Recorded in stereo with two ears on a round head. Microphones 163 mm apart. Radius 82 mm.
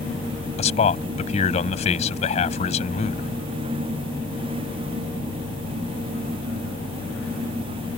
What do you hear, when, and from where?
0.6 s a man speaking: 40° left (ahead or behind)